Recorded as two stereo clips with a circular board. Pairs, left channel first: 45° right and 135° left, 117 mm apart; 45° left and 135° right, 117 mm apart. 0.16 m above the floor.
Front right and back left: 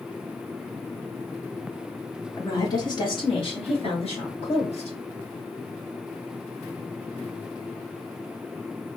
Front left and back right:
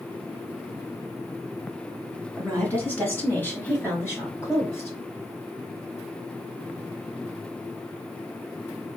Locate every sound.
2.4 s a woman speaking: 20° right, 1.2 m